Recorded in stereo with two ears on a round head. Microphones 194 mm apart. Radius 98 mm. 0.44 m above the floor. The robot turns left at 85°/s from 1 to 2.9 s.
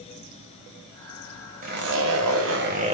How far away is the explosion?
I don't hear an explosion.